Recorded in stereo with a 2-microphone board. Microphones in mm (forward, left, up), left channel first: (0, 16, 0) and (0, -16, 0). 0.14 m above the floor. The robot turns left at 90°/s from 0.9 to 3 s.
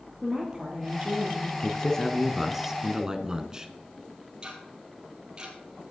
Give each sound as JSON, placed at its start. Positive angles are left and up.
{"t": 0.2, "sound": "a woman speaking", "azimuth_deg": -25, "distance_m": 3.0}
{"t": 1.6, "sound": "a man speaking", "side_deg": 25, "distance_m": 1.1}
{"t": 4.4, "sound": "ticking", "side_deg": -30, "distance_m": 3.0}